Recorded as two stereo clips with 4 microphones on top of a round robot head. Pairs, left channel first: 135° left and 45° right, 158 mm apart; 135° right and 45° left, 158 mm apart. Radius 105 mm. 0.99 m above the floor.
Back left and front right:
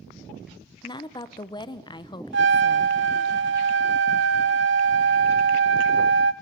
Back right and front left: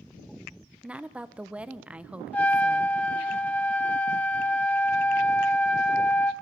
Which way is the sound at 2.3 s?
55° right.